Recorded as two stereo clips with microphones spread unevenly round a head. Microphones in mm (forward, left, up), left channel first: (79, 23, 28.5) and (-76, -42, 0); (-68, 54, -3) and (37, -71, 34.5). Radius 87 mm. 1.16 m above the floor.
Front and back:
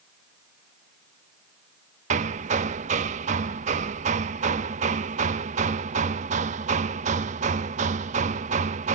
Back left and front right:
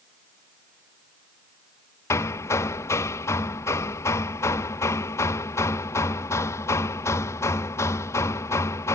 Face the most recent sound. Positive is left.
turn(degrees=-150)